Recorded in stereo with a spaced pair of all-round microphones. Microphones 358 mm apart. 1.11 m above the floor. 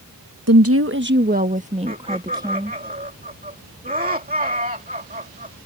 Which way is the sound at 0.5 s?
45° right (ahead or behind).